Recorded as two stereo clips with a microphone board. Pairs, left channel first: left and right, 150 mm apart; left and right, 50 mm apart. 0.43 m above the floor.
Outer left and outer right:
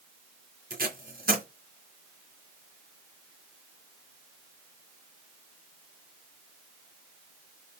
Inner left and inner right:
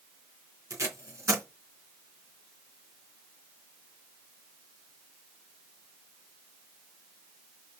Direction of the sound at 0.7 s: 80° right.